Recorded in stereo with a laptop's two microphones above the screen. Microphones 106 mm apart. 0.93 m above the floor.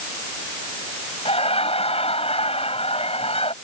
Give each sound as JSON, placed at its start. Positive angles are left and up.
{"t": 1.2, "sound": "laughter", "side_deg": 75}